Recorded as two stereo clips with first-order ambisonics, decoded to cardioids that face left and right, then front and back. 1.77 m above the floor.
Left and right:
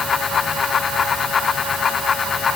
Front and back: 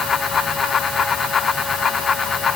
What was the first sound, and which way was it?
Only background noise.